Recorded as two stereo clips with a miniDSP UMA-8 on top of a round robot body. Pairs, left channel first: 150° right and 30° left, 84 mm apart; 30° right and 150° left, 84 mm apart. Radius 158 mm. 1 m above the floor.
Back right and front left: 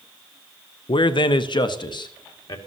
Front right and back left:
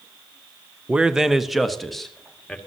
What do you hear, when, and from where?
0.9 s a man speaking: 135° right, 0.7 m; by 2.6 s 115° right, 2 m